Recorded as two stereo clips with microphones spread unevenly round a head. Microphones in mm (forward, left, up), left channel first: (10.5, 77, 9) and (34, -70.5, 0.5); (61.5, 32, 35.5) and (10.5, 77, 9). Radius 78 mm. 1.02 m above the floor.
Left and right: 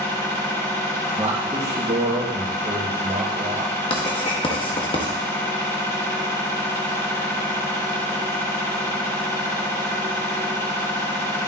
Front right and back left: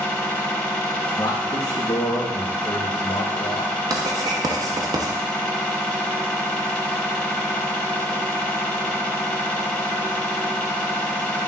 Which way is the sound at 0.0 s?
30° left.